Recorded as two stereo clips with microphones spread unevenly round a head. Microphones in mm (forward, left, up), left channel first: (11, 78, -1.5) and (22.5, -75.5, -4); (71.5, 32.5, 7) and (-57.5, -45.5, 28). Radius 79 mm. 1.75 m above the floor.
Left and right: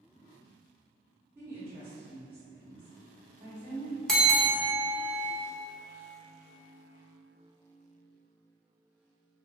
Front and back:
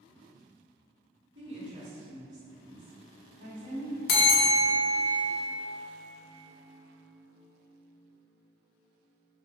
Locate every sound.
1.4 s a woman speaking: 165° right, 1.0 m
4.1 s a bell: 10° left, 0.5 m